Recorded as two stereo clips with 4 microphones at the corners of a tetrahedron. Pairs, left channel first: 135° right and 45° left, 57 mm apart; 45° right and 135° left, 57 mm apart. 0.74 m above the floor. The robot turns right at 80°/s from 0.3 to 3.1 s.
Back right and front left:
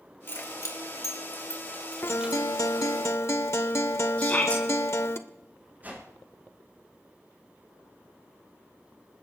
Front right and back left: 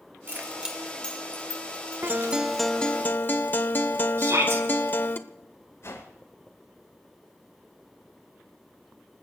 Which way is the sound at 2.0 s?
Straight behind.